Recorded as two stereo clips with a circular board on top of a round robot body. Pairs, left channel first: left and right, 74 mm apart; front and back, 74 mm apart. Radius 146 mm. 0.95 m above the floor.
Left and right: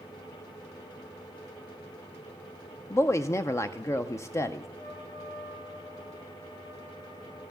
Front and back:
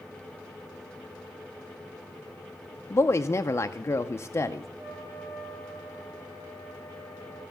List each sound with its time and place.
2.9 s a woman speaking: 50° left, 0.6 m
4.8 s a trumpet: 125° left, 4.5 m